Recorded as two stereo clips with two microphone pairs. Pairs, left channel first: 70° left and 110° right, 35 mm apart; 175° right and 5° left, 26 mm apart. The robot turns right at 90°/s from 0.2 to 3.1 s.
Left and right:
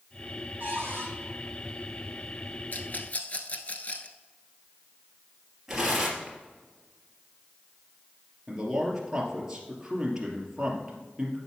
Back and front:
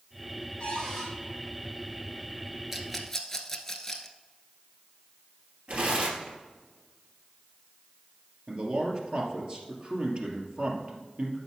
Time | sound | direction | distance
0.6 | a cupboard door | 135° right | 4.5 m
2.7 | a rattle | 75° left | 1.0 m
5.7 | tearing paper | 30° right | 3 m
8.5 | a man speaking | 40° right | 2.5 m